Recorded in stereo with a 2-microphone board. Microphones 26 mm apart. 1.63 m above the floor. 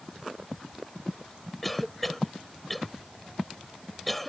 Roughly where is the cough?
Centre.